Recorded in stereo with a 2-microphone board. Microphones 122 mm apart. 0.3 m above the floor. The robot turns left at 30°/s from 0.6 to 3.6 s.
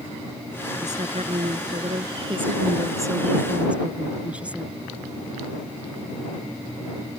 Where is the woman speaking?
85° right; by 4.8 s 170° right.